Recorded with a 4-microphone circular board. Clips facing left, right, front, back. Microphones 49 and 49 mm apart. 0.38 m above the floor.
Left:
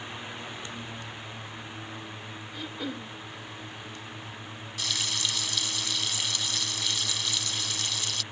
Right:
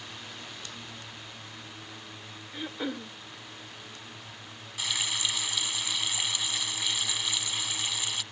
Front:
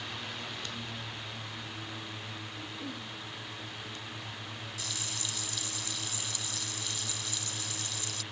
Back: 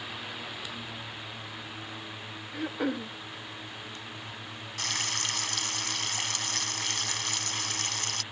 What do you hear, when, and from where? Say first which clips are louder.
2.5 s throat clearing: right 2 dB, back 14 dB; 165° right
4.8 s frying: right 1 dB, back 10 dB; 165° right